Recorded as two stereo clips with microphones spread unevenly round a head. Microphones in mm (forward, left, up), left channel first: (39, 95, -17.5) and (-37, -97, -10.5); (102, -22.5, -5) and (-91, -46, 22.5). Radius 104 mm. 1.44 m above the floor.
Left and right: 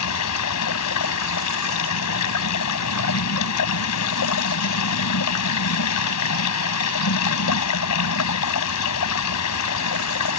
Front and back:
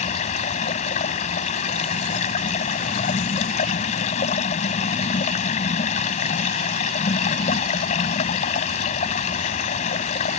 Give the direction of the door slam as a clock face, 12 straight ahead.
I don't hear a door slam.